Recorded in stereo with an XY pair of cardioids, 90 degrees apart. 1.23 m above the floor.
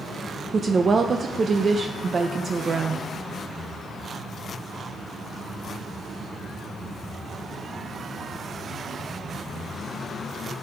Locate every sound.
0.5 s a woman speaking: 40° right, 0.5 m